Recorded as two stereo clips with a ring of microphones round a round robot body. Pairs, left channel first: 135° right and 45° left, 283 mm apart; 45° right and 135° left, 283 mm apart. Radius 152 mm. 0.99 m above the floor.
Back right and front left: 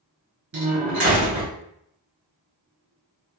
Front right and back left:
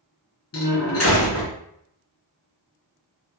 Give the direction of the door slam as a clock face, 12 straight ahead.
12 o'clock.